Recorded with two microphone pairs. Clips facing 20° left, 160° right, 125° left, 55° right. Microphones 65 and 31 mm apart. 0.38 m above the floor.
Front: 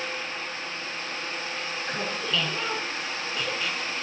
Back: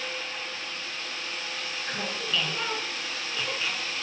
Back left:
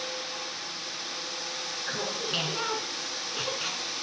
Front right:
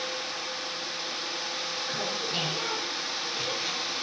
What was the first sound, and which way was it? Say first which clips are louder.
Laughter: front 2 dB, back left 2 dB; 115° left.